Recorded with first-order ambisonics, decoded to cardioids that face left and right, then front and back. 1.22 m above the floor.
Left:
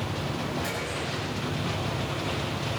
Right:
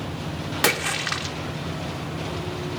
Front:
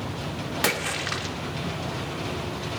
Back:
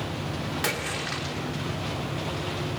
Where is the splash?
70° right, 0.9 m.